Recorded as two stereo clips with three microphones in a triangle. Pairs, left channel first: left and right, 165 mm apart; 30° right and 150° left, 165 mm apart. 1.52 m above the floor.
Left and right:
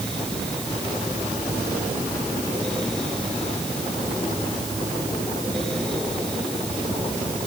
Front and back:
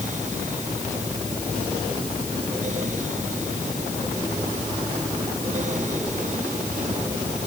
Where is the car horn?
No car horn in this recording.